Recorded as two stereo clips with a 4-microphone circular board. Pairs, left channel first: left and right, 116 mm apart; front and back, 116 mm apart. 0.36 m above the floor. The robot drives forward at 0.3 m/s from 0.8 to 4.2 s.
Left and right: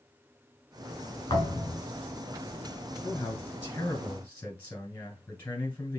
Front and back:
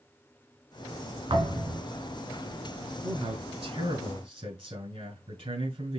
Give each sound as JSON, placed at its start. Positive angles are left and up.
{"t": 1.3, "sound": "a thud", "azimuth_deg": 145, "distance_m": 1.9}
{"t": 3.0, "sound": "a man speaking", "azimuth_deg": 160, "distance_m": 2.5}